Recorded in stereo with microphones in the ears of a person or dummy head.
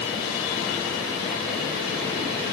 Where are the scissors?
No scissors in this recording.